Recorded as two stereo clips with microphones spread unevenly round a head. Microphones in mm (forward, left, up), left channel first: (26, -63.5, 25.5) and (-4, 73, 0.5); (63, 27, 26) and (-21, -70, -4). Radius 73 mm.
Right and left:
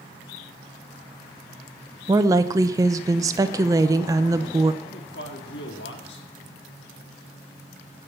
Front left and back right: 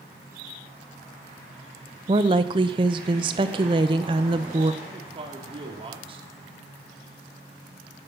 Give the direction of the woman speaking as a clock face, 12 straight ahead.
6 o'clock.